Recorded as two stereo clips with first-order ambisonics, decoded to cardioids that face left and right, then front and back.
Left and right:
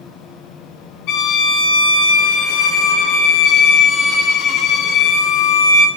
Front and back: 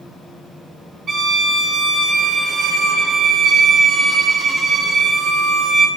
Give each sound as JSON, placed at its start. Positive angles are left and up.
{"t": 1.1, "sound": "a violin", "azimuth_deg": 110, "distance_m": 0.7}